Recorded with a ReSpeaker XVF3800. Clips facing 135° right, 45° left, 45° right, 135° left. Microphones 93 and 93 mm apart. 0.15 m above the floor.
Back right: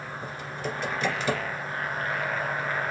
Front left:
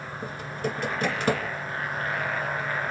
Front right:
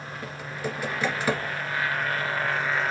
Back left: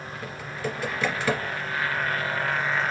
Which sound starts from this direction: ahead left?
Typing on a keyboard, at 0.2 s.